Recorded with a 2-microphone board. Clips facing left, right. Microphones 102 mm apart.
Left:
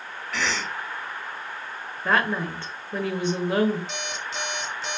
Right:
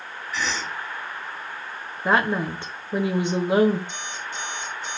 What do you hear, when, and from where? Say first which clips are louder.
0.3 s a cough: even; 70° left (ahead or behind), 3.5 m
2.0 s a woman speaking: right 2 dB; 20° right (ahead or behind), 1.0 m
3.9 s an alarm clock: left 1 dB; 80° left, 2 m